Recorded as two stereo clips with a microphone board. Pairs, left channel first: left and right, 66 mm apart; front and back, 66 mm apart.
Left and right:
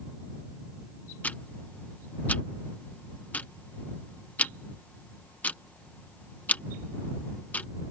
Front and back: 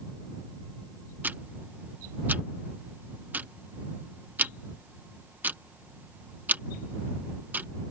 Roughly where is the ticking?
Behind left.